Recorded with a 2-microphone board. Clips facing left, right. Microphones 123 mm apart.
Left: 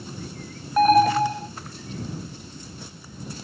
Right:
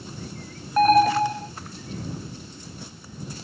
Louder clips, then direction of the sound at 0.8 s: Even; centre (ahead or behind).